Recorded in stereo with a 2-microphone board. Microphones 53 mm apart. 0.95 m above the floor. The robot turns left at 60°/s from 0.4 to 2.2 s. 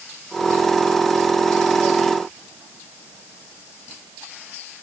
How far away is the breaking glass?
I don't hear breaking glass.